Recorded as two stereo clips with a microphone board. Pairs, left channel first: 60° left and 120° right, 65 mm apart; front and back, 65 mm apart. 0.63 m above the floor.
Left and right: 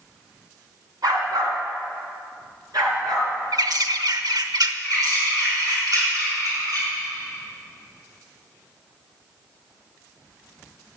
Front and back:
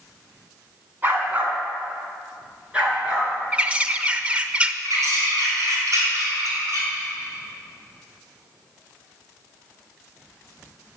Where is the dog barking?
120° right, 2.5 m; by 3.3 s 110° right, 5 m.